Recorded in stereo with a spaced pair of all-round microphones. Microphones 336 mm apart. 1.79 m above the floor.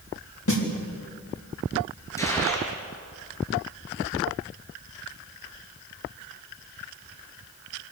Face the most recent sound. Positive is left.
turn(degrees=10)  # may be behind; listen again after turning